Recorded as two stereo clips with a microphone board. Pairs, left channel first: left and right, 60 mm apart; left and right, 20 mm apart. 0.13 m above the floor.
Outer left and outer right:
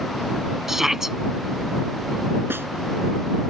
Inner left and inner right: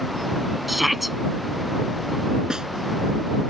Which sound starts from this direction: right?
A snare drum, at 2.5 s.